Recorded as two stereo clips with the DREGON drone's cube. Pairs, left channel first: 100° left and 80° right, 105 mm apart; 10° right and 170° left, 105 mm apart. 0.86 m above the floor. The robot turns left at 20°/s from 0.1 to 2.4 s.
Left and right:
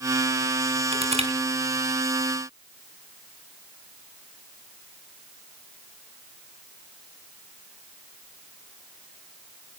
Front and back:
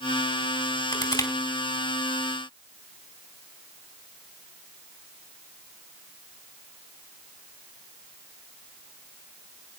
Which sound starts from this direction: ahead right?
Crushing, at 0.9 s.